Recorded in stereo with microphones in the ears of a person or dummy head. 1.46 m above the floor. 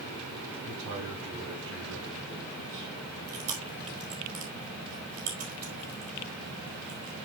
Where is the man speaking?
85° right, 4.5 m; by 2.9 s 75° right (ahead or behind), 3 m.